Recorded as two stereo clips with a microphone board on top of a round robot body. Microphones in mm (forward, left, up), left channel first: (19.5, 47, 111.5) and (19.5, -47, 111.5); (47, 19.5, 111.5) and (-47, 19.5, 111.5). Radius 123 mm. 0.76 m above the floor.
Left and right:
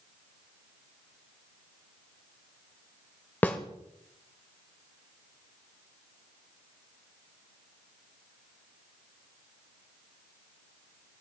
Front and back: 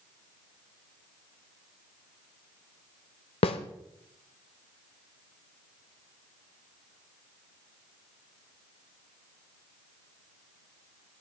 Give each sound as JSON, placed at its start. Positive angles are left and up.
{"t": 3.4, "sound": "a snare drum", "azimuth_deg": 20, "distance_m": 0.9}